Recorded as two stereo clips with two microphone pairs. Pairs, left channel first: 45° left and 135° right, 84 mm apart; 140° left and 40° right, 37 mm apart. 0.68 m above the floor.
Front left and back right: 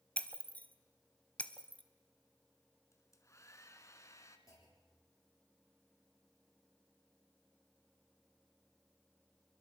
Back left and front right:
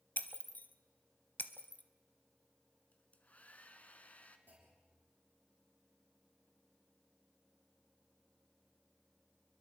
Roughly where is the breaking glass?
Behind left.